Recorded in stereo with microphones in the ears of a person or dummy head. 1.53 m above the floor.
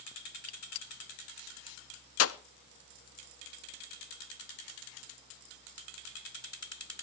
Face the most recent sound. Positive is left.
turn(degrees=65)  # may be behind; listen again after turning